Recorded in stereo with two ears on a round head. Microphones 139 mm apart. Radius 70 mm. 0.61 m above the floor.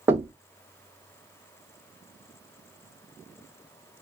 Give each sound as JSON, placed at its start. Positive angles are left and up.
{"t": 0.1, "sound": "knocking", "side_deg": -15, "distance_m": 0.7}